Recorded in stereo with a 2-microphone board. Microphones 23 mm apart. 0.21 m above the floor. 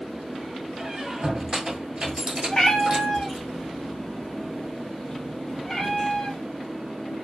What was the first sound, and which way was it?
A squeak, 35° right (ahead or behind).